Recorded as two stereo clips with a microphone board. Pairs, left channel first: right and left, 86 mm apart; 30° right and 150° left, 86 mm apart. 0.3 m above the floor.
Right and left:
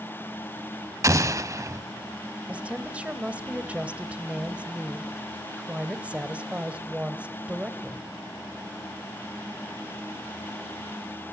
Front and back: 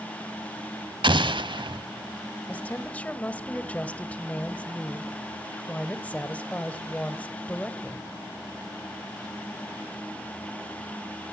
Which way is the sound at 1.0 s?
140° left.